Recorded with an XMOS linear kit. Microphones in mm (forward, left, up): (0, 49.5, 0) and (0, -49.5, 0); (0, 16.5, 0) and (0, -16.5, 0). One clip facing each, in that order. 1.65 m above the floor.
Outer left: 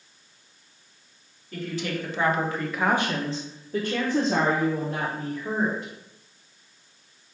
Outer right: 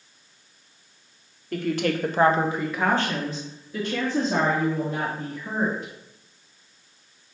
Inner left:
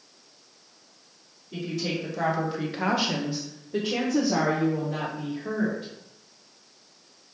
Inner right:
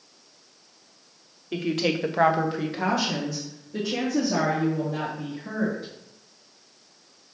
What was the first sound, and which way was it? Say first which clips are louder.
A woman speaking: outer right 6 dB, inner right 5 dB; 65° right (ahead or behind).